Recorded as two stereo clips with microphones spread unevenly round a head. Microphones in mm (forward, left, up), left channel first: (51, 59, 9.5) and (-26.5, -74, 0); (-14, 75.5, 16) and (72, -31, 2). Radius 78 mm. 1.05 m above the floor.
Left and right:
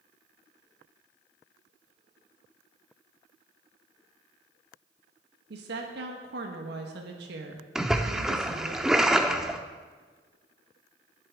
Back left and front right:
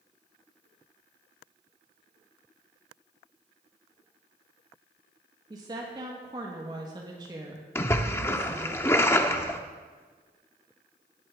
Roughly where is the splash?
Behind left.